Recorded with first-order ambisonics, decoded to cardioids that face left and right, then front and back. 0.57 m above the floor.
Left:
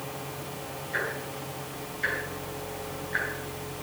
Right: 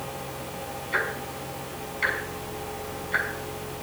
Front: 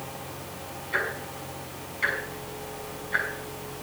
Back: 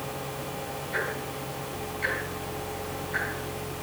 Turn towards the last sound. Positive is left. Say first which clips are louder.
# right 4 dB, front 3 dB
turn(degrees=-70)